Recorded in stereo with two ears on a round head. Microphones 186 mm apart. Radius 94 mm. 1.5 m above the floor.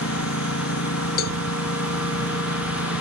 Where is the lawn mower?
75° left (ahead or behind).